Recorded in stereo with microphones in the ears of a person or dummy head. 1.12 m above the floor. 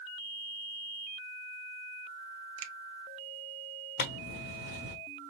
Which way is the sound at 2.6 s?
80° right.